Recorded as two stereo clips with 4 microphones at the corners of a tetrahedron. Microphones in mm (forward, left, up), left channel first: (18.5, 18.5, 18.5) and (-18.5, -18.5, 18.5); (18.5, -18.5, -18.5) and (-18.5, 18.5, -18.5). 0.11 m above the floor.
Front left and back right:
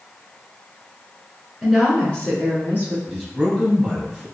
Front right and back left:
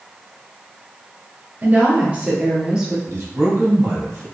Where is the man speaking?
115° left, 1.8 m.